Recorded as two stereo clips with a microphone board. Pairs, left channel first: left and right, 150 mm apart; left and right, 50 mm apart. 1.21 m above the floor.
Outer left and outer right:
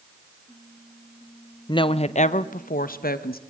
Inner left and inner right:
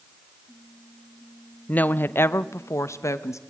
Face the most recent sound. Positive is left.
turn(degrees=85)